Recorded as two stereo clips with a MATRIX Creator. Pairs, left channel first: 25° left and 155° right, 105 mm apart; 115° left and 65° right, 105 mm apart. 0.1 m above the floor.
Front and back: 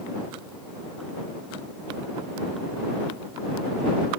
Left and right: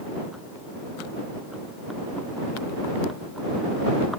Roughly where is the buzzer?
No buzzer in this recording.